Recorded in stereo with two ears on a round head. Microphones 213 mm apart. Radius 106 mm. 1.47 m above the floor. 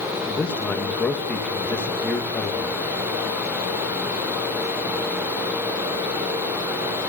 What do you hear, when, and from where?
0.2 s a man speaking: 5° left (ahead or behind), 2.5 m